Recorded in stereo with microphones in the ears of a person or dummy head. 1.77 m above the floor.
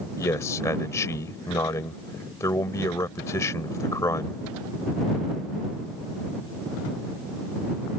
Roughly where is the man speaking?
Centre.